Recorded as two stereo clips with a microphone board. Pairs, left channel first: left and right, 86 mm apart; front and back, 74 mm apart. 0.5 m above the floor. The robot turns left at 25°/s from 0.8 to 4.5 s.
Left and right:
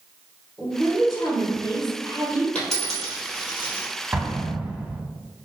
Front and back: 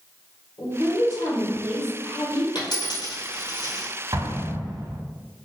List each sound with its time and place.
0.6 s a woman speaking: 15° left, 1.8 m; by 2.5 s 30° right, 1.8 m
2.5 s a dropped coin: 10° left, 1.8 m; by 3.9 s 25° right, 1.8 m
4.1 s an explosion: 160° right, 0.7 m; by 5.0 s 170° right, 0.7 m